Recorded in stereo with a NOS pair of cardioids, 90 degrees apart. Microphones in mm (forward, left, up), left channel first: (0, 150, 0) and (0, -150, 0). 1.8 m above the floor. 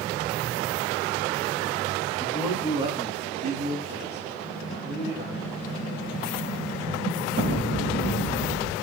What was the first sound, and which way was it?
A man speaking, straight ahead.